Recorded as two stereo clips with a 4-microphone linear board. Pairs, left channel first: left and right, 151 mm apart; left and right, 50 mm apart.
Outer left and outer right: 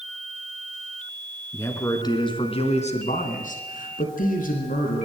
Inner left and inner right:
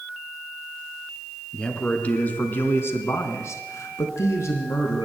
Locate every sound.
1.5 s a man speaking: 15° left (ahead or behind), 3.5 m; by 5.0 s 60° left (ahead or behind), 4.5 m